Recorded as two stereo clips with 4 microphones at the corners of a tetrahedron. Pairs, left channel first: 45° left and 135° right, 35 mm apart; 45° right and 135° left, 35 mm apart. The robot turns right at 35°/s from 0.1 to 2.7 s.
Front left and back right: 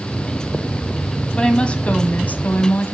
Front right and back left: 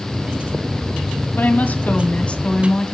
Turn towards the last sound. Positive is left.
turn(degrees=25)